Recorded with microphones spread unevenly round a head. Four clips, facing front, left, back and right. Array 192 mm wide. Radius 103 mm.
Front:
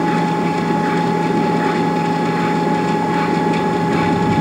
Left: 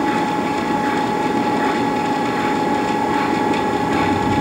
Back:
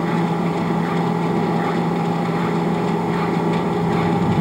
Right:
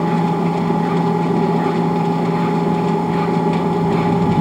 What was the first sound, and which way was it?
A machine running, 120° right.